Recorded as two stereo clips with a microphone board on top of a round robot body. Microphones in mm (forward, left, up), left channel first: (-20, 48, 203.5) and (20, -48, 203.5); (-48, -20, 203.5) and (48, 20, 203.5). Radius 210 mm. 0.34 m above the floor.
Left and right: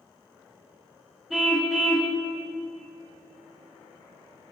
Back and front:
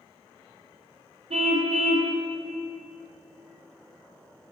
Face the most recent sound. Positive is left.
turn(degrees=20)